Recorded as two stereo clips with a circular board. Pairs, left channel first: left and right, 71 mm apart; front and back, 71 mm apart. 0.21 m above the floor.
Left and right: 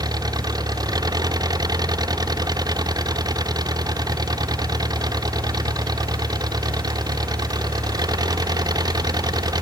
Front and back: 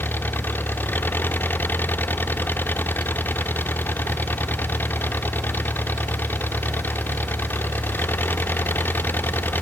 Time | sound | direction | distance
0.0 | an engine running | 65° right | ?